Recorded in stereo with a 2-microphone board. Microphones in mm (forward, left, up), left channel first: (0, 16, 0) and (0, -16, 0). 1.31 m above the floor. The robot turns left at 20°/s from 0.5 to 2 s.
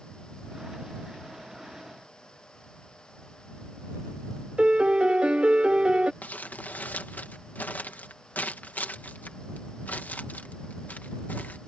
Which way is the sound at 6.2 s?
60° left (ahead or behind).